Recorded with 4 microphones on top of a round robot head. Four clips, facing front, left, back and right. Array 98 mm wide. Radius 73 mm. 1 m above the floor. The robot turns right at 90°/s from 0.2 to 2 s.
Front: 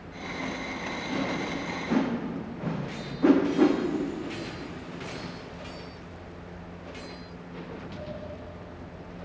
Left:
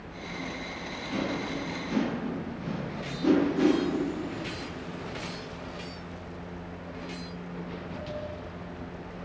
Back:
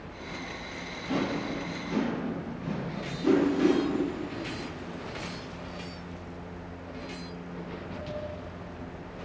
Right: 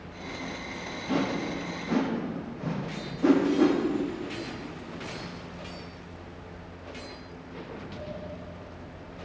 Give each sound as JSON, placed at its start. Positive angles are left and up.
{"t": 1.1, "sound": "a whoosh", "azimuth_deg": -110, "distance_m": 0.9}